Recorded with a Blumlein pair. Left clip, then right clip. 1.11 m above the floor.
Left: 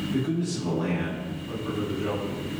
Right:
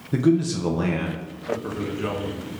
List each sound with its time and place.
0.1 s a man speaking: 40° right, 0.6 m
1.5 s a man speaking: 35° right, 1.2 m